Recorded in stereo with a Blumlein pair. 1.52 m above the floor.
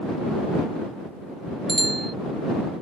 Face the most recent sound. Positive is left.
turn(degrees=-10)